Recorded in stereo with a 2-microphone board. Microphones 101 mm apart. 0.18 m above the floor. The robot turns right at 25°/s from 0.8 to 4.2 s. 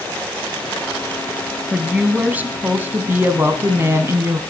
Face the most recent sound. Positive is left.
turn(degrees=-25)  # may be behind; listen again after turning